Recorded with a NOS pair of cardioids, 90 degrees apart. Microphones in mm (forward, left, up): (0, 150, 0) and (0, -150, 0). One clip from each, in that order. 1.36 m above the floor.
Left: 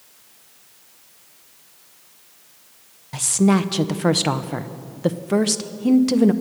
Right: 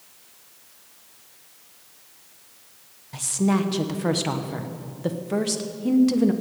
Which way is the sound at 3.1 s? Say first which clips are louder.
Left 5 dB; 30° left.